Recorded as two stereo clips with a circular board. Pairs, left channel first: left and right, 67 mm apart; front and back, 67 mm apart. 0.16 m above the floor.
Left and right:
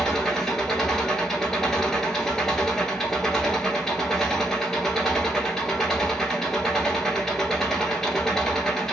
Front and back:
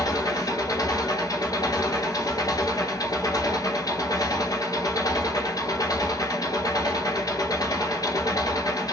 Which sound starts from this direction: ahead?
An engine running, at 0.0 s.